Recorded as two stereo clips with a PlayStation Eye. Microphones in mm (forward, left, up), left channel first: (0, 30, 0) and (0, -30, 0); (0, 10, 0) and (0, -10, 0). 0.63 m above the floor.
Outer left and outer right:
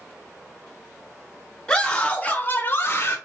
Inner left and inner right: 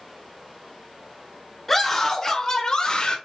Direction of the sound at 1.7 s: 10° left (ahead or behind).